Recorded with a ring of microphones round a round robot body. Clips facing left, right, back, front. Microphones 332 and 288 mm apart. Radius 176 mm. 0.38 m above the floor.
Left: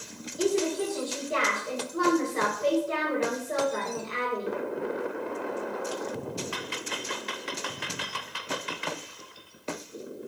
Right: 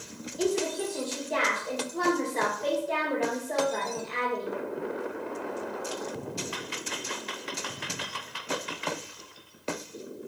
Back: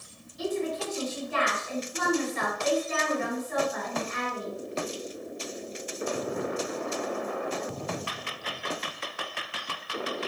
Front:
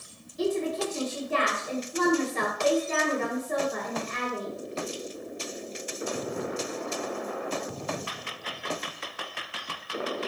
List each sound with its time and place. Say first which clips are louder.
0.4 s a woman speaking: left 2 dB, front 3 dB; 15° left, 2.5 m